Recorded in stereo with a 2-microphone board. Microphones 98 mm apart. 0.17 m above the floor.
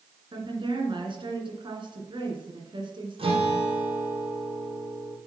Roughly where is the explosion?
I don't hear an explosion.